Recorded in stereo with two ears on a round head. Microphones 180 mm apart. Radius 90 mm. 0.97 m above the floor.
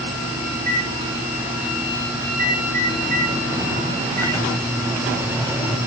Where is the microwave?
10° left (ahead or behind), 5.5 m.